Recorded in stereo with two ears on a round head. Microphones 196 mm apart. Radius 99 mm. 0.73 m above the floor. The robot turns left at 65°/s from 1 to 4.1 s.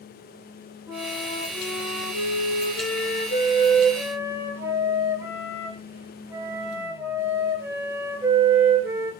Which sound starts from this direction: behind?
A flute, at 0.9 s.